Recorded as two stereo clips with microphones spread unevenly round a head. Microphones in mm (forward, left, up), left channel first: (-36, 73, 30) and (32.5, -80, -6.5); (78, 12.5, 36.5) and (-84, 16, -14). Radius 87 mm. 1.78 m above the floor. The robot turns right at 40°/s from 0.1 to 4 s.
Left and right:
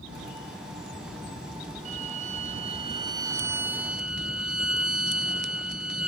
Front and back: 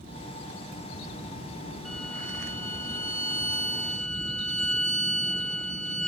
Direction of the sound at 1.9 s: 45° right.